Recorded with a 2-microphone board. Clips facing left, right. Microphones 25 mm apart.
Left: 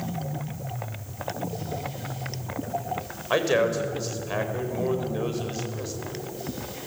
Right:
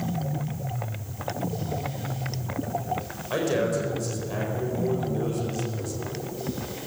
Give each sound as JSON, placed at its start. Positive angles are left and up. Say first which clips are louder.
{"t": 3.3, "sound": "a man speaking", "louder": "left 3 dB", "side_deg": 30, "distance_m": 4.5}